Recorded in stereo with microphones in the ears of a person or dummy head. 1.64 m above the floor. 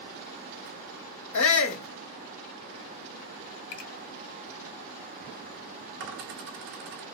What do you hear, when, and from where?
1.3 s a shout: 70° left (ahead or behind), 1.0 m
3.7 s a finger snap: 60° left (ahead or behind), 1.4 m
6.0 s a dropped coin: 65° right (ahead or behind), 2.5 m